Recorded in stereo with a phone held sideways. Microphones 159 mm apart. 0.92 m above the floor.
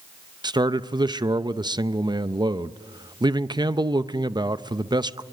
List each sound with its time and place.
0.4 s a man speaking: 25° right (ahead or behind), 0.6 m